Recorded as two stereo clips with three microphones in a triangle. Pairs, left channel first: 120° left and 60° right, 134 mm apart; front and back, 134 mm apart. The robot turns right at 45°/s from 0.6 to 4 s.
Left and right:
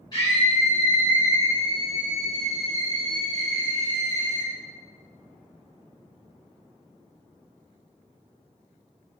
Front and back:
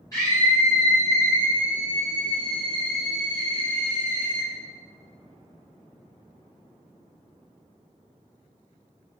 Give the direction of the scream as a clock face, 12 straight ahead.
10 o'clock.